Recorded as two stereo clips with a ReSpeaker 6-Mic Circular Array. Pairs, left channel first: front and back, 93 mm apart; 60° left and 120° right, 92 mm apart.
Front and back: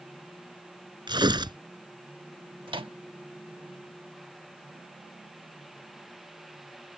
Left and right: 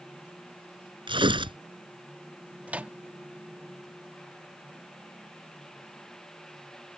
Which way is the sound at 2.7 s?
165° left.